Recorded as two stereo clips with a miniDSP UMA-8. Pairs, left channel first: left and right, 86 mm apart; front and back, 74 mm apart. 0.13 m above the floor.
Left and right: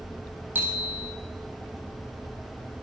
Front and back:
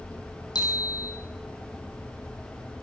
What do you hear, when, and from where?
0.6 s a bicycle bell: 25° right, 3.5 m